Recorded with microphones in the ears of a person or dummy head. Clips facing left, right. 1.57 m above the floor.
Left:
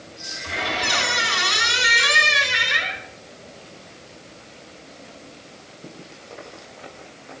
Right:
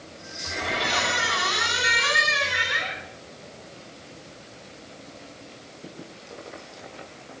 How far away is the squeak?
About 4 m.